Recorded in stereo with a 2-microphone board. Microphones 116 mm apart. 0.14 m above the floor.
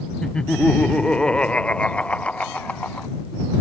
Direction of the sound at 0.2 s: 5° left (ahead or behind).